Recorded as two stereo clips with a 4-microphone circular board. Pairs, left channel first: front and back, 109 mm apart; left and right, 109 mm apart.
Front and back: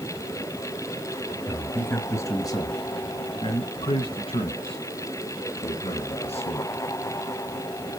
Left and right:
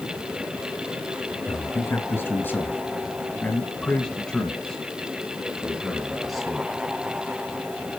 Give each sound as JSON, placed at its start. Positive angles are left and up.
{"t": 1.5, "sound": "a man speaking", "azimuth_deg": 65, "distance_m": 1.4}